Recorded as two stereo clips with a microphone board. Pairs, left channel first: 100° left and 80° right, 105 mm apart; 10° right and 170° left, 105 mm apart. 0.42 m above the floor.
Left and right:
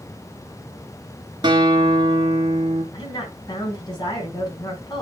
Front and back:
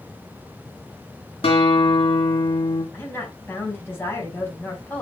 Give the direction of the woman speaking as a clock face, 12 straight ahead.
10 o'clock.